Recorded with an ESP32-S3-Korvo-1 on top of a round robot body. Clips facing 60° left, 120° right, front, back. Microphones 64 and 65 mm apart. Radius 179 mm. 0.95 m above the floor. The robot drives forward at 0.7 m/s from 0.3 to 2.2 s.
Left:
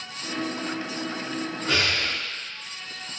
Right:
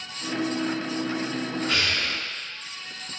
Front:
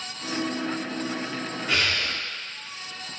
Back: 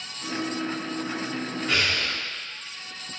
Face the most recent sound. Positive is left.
turn(degrees=125)